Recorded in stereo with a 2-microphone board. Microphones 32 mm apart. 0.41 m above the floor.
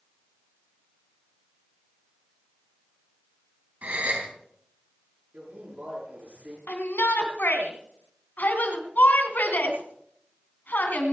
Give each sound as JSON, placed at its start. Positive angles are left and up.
{"t": 3.8, "sound": "a gasp", "side_deg": -55, "distance_m": 3.5}
{"t": 5.3, "sound": "a man speaking", "side_deg": -45, "distance_m": 6.5}
{"t": 6.7, "sound": "a shout", "side_deg": 75, "distance_m": 3.0}